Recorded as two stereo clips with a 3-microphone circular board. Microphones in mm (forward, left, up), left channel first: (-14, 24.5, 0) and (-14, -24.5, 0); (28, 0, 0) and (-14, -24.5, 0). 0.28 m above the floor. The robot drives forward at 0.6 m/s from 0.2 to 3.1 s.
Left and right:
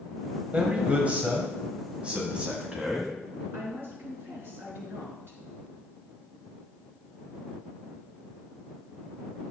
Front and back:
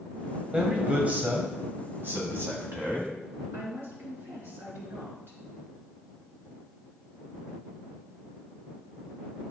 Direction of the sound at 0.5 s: 110° right.